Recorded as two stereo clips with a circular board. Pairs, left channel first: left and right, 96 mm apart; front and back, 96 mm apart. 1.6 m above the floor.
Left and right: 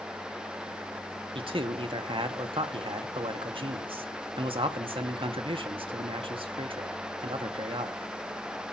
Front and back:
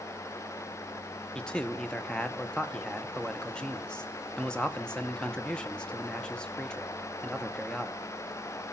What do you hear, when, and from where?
1.4 s a man speaking: 80° right, 1.1 m